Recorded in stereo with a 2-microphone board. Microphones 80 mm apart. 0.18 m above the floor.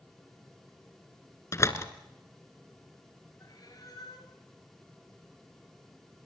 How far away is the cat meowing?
About 6.5 m.